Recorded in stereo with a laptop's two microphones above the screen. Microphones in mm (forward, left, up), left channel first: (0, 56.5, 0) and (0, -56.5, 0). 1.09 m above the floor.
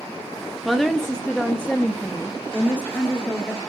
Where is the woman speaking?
Centre (ahead or behind), 0.5 m; by 3.6 s 10° left (ahead or behind), 1.8 m.